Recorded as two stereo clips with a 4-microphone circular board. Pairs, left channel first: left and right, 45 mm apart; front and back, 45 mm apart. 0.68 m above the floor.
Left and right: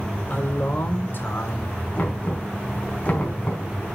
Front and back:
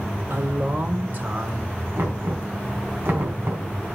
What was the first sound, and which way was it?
A man speaking, 140° left.